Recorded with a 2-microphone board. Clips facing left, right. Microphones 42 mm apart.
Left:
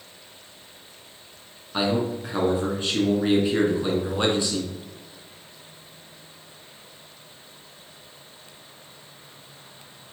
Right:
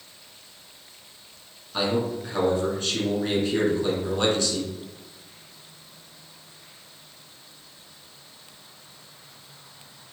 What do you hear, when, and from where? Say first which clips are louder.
1.7 s a man speaking: left 1 dB; 20° left (ahead or behind), 1.2 m